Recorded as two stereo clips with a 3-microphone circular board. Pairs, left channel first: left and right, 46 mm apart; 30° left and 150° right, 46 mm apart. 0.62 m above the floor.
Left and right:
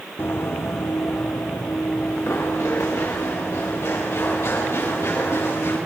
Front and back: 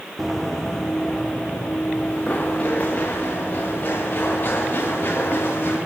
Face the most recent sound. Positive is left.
turn(degrees=75)